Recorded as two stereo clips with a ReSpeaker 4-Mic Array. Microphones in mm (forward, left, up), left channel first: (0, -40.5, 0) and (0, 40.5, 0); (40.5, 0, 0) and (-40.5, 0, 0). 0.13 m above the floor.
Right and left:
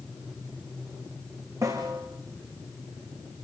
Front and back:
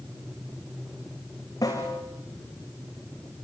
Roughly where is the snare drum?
Ahead left.